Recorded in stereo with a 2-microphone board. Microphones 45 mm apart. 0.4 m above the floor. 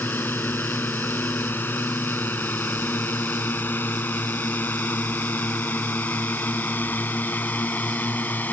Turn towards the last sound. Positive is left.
turn(degrees=45)  # may be behind; listen again after turning